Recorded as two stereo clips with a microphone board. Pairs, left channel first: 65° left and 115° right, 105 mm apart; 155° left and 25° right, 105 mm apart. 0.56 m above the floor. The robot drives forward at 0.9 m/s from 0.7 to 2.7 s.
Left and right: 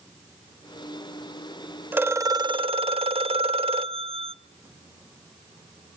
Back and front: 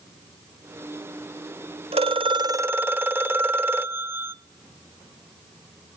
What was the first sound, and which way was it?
A phone ringing, 40° right.